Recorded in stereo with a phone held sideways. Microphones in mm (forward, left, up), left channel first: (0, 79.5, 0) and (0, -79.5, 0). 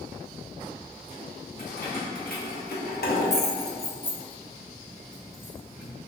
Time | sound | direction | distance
1.6 | keys jangling | 60° left (ahead or behind) | 1.5 m